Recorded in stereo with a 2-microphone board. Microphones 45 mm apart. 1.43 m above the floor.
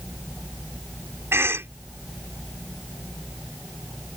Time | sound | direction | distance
1.3 | a cough | 65° right (ahead or behind) | ?